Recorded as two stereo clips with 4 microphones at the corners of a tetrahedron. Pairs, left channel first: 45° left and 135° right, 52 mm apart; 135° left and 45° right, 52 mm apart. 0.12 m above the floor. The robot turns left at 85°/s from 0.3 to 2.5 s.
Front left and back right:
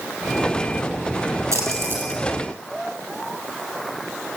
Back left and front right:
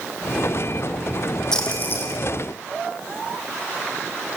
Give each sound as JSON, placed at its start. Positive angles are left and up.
{"t": 1.5, "sound": "a splash", "azimuth_deg": -145, "distance_m": 4.0}